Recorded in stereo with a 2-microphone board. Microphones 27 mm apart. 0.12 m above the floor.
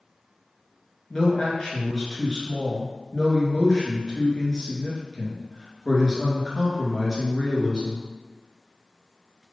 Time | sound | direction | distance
1.1 | a man speaking | 30° left (ahead or behind) | 1.7 m